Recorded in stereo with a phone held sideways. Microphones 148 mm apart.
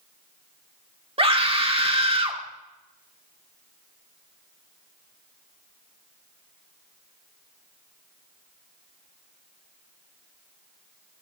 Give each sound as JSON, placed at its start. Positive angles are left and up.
{"t": 1.2, "sound": "a scream", "side_deg": -40, "distance_m": 1.8}